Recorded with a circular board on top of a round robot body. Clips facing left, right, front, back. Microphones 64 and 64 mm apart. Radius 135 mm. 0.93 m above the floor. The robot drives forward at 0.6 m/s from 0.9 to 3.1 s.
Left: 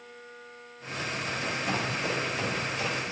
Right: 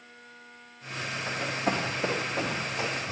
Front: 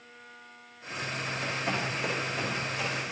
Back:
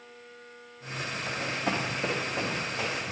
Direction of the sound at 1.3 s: 125° right.